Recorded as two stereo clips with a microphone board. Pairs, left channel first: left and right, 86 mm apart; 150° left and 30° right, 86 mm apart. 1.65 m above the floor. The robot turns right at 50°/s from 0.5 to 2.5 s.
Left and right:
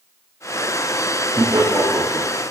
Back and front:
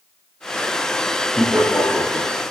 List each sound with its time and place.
1.4 s laughter: 125° right, 0.6 m; by 2.3 s 75° right, 0.6 m